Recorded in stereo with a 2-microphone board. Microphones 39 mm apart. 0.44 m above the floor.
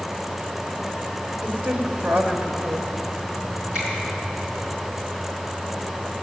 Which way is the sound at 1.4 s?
45° right (ahead or behind).